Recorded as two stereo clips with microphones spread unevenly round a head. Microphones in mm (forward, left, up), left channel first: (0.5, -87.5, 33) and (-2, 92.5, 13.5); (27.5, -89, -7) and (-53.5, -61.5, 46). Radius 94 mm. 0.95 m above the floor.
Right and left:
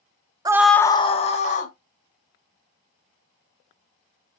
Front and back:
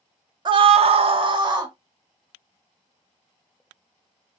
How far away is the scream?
About 0.5 m.